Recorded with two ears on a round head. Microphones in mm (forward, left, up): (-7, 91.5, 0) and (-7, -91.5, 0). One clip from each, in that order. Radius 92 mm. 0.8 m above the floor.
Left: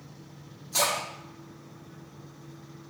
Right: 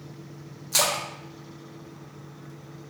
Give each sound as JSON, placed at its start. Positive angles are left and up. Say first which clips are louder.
{"t": 0.7, "sound": "a splash", "louder": "right 2 dB", "side_deg": -35, "distance_m": 0.7}